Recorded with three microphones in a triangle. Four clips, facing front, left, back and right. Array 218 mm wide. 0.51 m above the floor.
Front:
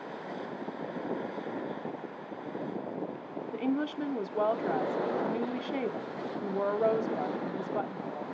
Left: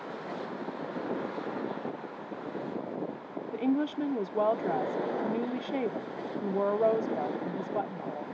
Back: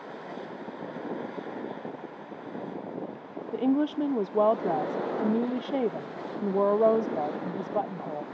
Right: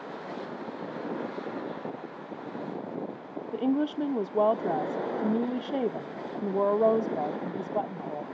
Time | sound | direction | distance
3.5 | a woman speaking | 155° right | 0.8 m